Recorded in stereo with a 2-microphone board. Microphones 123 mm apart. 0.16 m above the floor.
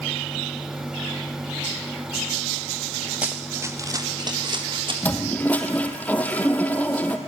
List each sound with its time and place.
3.2 s running footsteps: 10° right (ahead or behind), 2.5 m; by 4.9 s 45° right (ahead or behind), 4 m
5.0 s a toilet flushing: 10° left (ahead or behind), 2 m